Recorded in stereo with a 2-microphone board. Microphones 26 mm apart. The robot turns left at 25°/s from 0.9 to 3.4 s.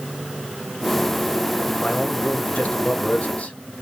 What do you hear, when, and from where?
1.8 s a man speaking: 125° left, 0.8 m; by 3.5 s 85° left, 0.8 m